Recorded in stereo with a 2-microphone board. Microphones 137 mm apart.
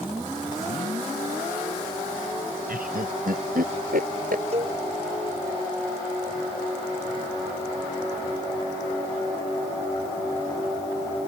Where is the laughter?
85° right; by 4.5 s 80° right.